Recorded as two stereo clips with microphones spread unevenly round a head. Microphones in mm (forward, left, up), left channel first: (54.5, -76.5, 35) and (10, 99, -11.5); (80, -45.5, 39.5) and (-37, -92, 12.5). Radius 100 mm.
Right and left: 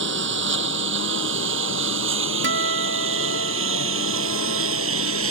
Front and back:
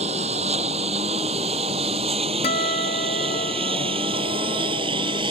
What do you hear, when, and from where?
0.0 s a lawn mower: 140° left; by 5.3 s 130° left
2.4 s a guitar: 75° left